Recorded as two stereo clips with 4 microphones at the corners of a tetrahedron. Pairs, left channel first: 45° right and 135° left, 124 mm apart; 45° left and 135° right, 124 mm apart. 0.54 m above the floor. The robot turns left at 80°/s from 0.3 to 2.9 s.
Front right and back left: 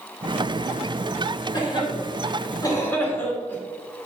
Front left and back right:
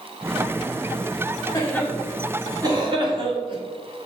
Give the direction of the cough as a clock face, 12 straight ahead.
12 o'clock.